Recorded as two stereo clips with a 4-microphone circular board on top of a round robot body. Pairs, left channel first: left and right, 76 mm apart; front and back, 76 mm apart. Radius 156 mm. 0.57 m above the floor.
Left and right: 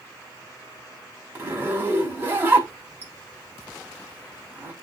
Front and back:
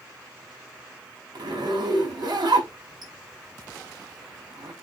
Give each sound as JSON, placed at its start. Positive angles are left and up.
{"t": 1.4, "sound": "a zipper", "azimuth_deg": -155, "distance_m": 5.0}